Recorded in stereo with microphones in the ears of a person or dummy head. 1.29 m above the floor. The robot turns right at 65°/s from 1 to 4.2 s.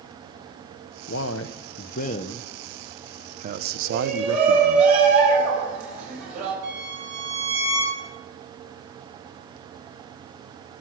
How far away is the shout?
About 6.5 m.